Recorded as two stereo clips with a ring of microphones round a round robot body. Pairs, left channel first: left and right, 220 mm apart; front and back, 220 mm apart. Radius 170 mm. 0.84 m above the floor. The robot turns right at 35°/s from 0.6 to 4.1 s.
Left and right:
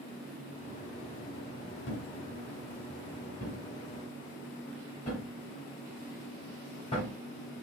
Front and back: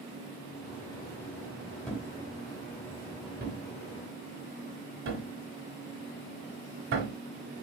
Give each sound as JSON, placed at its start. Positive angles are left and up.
{"t": 1.9, "sound": "a thud", "azimuth_deg": 85, "distance_m": 1.2}